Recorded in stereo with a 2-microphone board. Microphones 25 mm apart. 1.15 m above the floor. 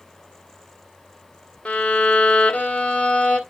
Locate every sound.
1.6 s a violin: 55° left (ahead or behind), 1.5 m